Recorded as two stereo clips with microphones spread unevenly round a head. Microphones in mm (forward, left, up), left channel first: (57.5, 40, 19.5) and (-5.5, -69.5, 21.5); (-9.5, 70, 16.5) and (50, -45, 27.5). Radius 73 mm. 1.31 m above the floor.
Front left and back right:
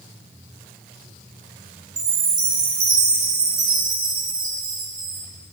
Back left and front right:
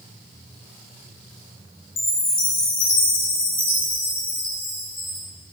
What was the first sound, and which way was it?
A chime, 175° left.